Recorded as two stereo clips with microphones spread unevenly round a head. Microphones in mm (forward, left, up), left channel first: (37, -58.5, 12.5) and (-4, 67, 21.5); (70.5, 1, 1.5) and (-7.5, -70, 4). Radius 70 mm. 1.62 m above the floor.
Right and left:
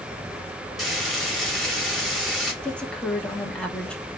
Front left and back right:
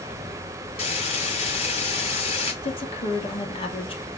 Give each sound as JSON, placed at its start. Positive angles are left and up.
{"t": 0.8, "sound": "frying", "azimuth_deg": 20, "distance_m": 4.5}
{"t": 2.6, "sound": "a woman speaking", "azimuth_deg": 10, "distance_m": 3.0}